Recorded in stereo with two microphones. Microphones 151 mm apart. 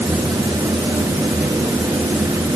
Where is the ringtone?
No ringtone in this recording.